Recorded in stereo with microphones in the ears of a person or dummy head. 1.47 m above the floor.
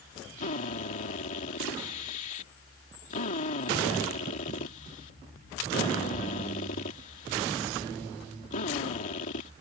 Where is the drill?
45° left (ahead or behind).